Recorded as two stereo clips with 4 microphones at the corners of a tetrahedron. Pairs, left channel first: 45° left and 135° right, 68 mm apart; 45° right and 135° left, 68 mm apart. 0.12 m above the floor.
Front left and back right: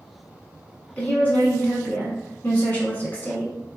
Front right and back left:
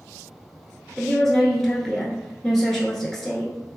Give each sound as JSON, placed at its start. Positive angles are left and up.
{"t": 1.0, "sound": "a woman speaking", "azimuth_deg": 35, "distance_m": 1.1}